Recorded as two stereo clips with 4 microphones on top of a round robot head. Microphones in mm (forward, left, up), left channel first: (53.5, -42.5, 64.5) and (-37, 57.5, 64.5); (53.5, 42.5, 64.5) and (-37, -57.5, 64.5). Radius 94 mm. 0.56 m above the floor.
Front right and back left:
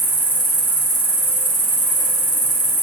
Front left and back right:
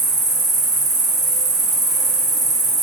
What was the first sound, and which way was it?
An insect, 110° right.